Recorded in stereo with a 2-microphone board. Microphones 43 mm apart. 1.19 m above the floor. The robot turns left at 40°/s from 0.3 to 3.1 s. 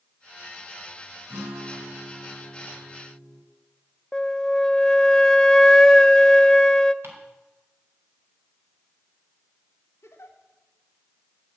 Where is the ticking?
60° right (ahead or behind), 4.5 m.